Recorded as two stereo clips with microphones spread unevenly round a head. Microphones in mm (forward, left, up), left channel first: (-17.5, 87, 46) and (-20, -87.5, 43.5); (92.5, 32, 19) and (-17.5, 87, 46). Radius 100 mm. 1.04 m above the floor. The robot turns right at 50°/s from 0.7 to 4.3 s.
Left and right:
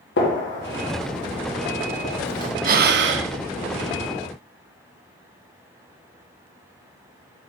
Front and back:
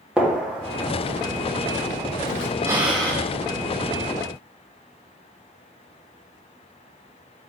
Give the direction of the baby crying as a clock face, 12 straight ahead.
No baby crying in this recording.